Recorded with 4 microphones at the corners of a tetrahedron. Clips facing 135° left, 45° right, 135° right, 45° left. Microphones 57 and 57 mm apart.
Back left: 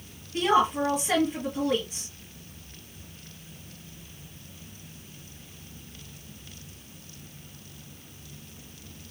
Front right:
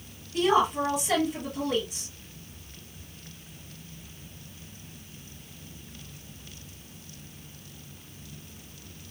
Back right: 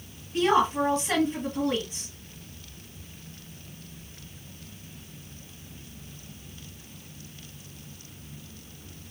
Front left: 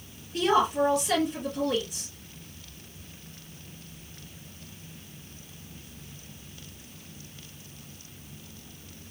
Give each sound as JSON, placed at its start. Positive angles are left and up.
{"t": 0.3, "sound": "a woman speaking", "azimuth_deg": 180, "distance_m": 2.5}